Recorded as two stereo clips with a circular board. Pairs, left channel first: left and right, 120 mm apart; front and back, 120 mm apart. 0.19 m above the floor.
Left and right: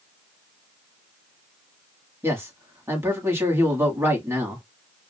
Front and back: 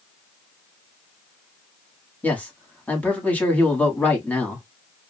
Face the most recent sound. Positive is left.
turn(degrees=-55)